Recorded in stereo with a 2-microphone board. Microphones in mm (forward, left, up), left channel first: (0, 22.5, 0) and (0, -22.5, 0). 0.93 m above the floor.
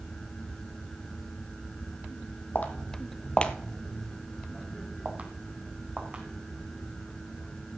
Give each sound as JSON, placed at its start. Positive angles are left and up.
{"t": 2.5, "sound": "footsteps", "side_deg": 45, "distance_m": 1.8}